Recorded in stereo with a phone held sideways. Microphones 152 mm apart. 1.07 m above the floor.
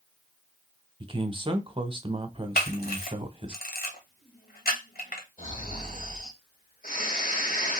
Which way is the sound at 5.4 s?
65° left (ahead or behind).